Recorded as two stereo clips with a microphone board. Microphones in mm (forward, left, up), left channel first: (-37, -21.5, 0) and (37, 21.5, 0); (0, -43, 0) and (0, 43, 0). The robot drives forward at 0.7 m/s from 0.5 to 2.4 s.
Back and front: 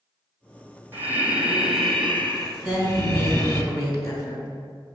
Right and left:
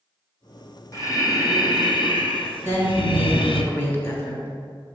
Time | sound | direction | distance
0.9 | breathing | 40° right | 1.3 m
2.6 | a woman speaking | 145° right | 1.7 m